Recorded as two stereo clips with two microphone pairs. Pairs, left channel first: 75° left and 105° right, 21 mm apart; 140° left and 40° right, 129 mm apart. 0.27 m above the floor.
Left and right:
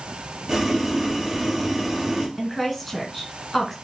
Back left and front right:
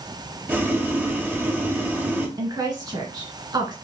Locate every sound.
0.5 s boiling: 110° right, 0.9 m
2.4 s a woman speaking: 15° right, 1.8 m